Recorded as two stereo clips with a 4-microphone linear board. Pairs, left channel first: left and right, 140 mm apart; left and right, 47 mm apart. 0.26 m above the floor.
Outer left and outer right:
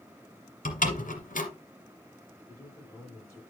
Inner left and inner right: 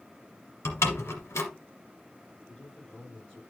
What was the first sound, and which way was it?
A door slam, 70° left (ahead or behind).